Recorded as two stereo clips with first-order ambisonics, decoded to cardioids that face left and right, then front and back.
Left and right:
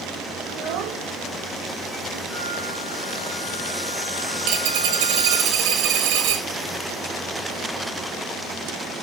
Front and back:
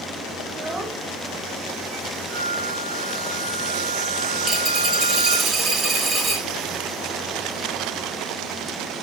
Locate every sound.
0.5 s a child speaking: 130° right, 0.8 m; by 2.2 s 75° right, 2 m
2.3 s a flute: 160° right, 3 m
4.4 s a dropped coin: 110° right, 2.5 m